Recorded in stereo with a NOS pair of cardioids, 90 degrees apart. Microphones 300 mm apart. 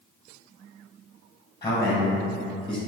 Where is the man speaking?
15° left, 1.0 m; by 2.8 s straight ahead, 1.6 m.